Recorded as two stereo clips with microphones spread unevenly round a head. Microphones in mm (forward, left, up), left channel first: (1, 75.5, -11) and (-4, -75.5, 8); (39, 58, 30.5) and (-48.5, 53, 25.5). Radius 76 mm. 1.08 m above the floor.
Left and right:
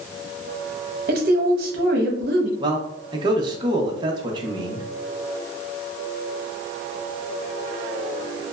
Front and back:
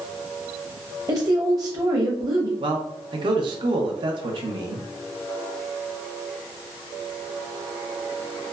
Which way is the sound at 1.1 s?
125° right.